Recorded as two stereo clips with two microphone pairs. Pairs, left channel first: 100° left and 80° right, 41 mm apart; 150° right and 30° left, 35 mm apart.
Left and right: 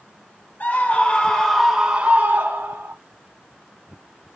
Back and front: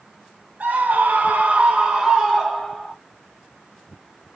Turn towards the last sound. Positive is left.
turn(degrees=-65)